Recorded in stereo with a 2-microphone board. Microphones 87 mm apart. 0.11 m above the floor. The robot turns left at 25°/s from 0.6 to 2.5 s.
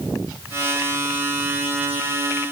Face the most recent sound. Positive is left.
No sound to turn to.